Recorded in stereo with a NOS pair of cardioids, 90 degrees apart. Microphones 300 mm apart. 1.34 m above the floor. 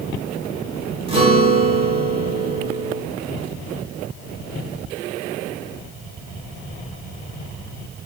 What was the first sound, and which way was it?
A guitar, 20° right.